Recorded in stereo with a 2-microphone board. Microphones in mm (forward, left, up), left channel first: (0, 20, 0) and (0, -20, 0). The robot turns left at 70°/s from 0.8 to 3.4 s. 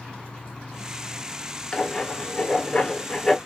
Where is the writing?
25° left (ahead or behind), 1.4 m; by 3.4 s 5° left (ahead or behind), 1.4 m.